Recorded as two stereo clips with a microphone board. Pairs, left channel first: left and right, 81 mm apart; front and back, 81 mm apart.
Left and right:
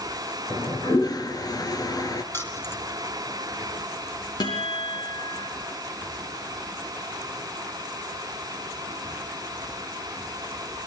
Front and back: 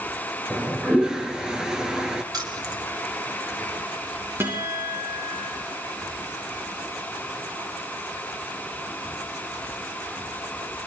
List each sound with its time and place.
0.5 s a toilet flushing: 100° left, 1.7 m
2.3 s keys jangling: 150° left, 2.5 m
4.4 s a guitar: 120° left, 9 m